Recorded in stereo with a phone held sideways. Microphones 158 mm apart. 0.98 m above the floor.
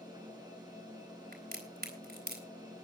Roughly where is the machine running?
Right.